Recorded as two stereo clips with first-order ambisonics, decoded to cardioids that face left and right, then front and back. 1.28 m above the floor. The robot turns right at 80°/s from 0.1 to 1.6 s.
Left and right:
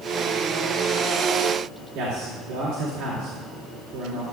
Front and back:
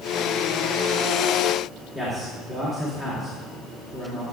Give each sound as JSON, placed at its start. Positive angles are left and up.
{"t": 1.9, "sound": "a man speaking", "azimuth_deg": -110, "distance_m": 2.0}